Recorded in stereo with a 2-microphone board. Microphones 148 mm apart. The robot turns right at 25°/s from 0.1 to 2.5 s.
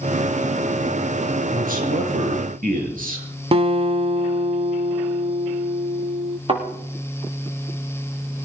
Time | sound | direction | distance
1.5 | a man speaking | 70° right (ahead or behind) | 5 m
3.5 | a guitar | 40° right (ahead or behind) | 0.8 m
6.5 | a thud | 40° right (ahead or behind) | 8 m